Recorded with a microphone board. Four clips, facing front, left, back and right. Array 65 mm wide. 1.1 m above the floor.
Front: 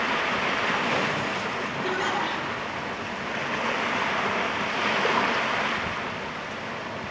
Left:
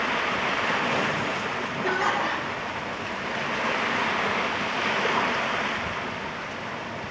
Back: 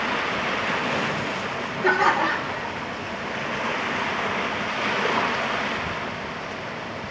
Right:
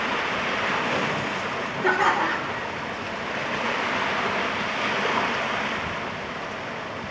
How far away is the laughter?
About 3.5 m.